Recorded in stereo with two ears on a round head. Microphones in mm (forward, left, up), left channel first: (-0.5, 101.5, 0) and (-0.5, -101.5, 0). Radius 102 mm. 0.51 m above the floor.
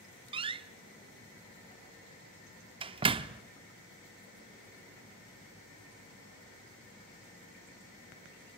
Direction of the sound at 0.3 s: 25° right (ahead or behind).